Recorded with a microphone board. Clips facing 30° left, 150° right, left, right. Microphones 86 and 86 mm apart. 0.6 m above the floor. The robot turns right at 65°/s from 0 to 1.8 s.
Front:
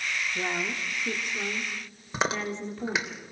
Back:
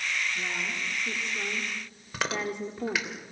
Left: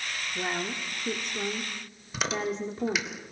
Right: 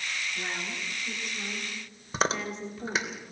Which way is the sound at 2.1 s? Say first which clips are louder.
Front 2 dB, right 1 dB; 40° right.